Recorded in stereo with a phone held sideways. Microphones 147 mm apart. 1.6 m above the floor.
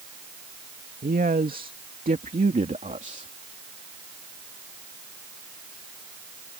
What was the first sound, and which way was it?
A man speaking, 80° right.